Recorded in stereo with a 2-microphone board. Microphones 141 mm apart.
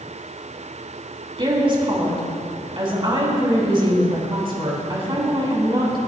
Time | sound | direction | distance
1.4 | a woman speaking | 35° right (ahead or behind) | 4 m